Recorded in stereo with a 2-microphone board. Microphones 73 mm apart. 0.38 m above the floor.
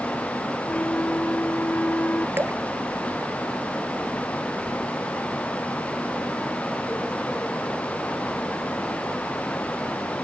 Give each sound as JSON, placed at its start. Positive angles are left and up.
{"t": 0.7, "sound": "a flute", "side_deg": 25}
{"t": 2.4, "sound": "dripping", "side_deg": -35}